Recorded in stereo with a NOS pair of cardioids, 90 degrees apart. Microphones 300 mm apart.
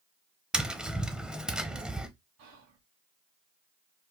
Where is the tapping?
5° right, 0.6 m.